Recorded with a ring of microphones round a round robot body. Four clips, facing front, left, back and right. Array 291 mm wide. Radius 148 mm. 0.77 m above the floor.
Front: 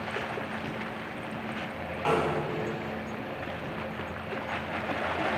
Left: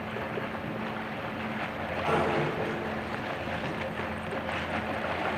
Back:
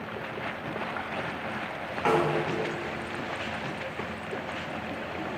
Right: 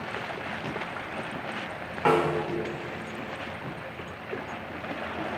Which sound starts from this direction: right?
A snare drum, at 2.0 s.